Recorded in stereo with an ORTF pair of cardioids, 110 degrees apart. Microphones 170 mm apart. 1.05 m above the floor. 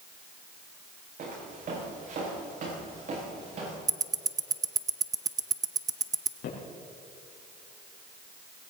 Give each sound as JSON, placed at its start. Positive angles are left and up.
{"t": 1.2, "sound": "footsteps", "azimuth_deg": -50, "distance_m": 6.5}
{"t": 3.9, "sound": "ticking", "azimuth_deg": -20, "distance_m": 0.6}
{"t": 6.4, "sound": "footsteps", "azimuth_deg": 65, "distance_m": 5.0}